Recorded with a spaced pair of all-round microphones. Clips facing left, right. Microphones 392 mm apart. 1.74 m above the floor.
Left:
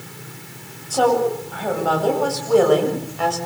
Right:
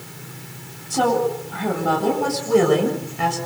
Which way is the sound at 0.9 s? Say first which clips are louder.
Left 2 dB; 35° right (ahead or behind).